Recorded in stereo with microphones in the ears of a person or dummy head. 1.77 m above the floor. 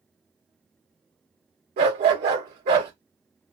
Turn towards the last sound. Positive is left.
turn(degrees=-40)  # may be behind; listen again after turning